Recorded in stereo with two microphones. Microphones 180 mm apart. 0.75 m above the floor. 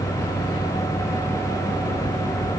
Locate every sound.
Only background noise.